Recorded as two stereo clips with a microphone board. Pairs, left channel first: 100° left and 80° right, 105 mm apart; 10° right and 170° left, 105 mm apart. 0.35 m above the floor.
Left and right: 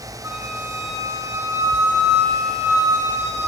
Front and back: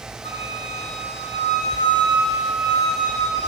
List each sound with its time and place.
0.2 s a flute: 10° right, 5.5 m